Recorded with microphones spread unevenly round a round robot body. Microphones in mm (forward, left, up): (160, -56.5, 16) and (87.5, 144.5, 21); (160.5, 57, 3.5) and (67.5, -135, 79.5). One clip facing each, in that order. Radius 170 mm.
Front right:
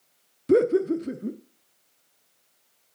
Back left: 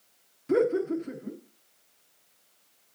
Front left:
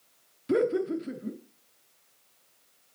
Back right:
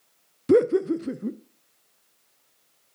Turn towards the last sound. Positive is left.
turn(degrees=-90)